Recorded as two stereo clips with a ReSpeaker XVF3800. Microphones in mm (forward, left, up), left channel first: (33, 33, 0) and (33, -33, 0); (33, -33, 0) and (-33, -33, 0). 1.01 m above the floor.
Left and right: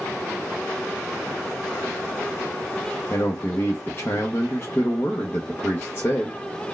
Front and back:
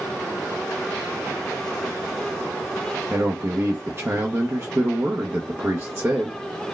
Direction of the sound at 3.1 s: 140° left.